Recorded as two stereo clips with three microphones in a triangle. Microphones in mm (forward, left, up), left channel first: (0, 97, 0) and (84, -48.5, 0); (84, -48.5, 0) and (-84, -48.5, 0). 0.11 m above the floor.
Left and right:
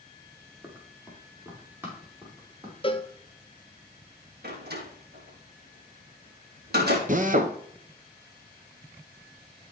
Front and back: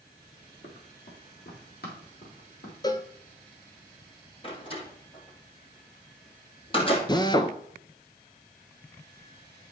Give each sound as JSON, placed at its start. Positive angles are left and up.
{"t": 0.6, "sound": "running footsteps", "azimuth_deg": 20, "distance_m": 2.5}
{"t": 2.8, "sound": "a cowbell", "azimuth_deg": 65, "distance_m": 0.6}
{"t": 4.4, "sound": "a door slam", "azimuth_deg": -55, "distance_m": 2.5}
{"t": 7.1, "sound": "a drill", "azimuth_deg": -60, "distance_m": 0.7}